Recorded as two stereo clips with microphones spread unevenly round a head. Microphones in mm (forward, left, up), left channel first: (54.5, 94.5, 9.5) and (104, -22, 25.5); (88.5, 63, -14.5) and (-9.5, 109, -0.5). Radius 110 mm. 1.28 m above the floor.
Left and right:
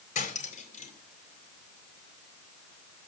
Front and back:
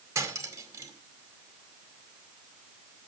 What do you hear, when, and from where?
0.1 s cutlery clinking: 100° left, 2 m